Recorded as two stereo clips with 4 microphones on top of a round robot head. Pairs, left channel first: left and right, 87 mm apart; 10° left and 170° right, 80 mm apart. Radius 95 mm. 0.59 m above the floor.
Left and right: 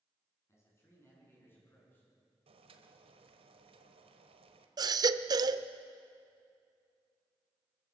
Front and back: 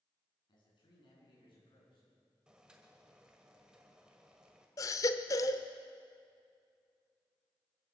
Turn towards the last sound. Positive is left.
turn(degrees=-45)